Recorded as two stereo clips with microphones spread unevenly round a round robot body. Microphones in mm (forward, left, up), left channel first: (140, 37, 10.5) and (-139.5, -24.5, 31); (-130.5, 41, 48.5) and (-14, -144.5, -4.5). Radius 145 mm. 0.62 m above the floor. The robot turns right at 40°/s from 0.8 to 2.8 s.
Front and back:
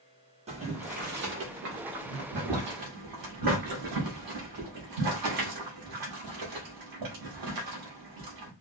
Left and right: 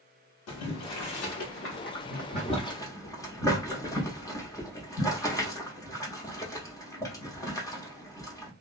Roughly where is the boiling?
Behind left.